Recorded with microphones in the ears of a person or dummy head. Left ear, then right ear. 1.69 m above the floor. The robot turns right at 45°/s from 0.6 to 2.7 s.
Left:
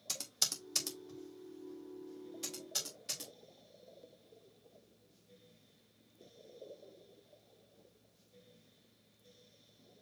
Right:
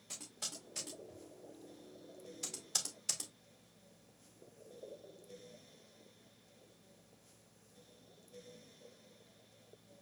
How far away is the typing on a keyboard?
About 1.3 m.